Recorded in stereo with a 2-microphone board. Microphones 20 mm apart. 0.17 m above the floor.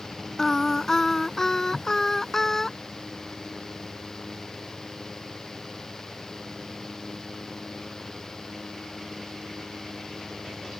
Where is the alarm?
No alarm in this recording.